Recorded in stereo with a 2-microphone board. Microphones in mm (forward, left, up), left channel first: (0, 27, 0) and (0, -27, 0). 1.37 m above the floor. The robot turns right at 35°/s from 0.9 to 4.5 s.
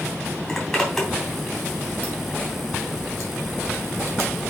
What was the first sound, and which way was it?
A zipper, 5° left (ahead or behind).